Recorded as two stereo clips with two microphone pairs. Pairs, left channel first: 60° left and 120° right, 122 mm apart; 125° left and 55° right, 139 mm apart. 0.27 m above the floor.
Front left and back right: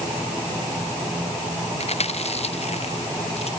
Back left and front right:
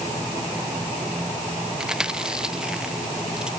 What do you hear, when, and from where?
1.8 s chewing: 30° left